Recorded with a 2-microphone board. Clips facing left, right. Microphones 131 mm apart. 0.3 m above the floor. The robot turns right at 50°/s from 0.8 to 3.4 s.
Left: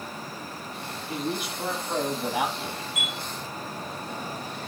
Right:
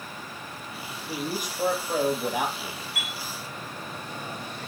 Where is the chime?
65° right (ahead or behind), 2.5 m; by 3.1 s 55° right (ahead or behind), 2.5 m.